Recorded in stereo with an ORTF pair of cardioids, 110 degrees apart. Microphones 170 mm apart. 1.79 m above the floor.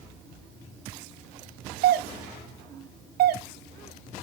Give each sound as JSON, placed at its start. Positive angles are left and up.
{"t": 1.8, "sound": "a doorbell", "azimuth_deg": -65, "distance_m": 0.9}